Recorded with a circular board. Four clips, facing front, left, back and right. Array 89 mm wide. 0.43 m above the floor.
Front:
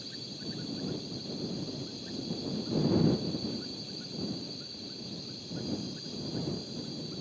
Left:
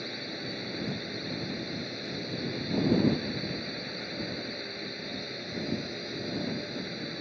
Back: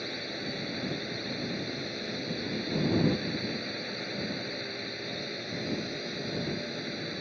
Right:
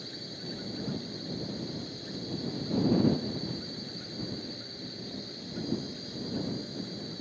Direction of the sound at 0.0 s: 150° left.